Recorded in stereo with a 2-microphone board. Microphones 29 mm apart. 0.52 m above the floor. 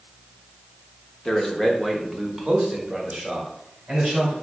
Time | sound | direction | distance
1.2 | a man speaking | 20° left (ahead or behind) | 0.8 m